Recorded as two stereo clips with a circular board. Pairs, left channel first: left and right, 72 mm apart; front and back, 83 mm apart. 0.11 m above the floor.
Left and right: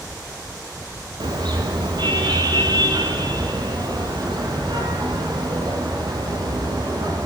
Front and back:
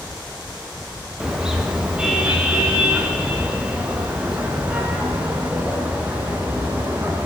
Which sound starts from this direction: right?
A car horn, at 1.2 s.